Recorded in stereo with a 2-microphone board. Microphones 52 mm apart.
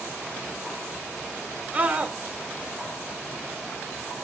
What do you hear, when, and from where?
1.7 s a scream: 35° right (ahead or behind), 1.5 m